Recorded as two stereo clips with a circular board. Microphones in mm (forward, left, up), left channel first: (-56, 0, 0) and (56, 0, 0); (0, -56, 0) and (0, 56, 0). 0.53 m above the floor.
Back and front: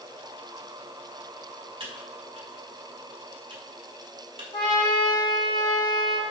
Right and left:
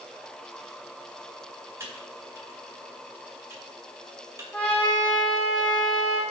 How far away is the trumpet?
About 1.7 m.